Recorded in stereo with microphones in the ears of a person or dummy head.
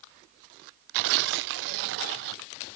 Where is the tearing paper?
65° right (ahead or behind), 0.5 m.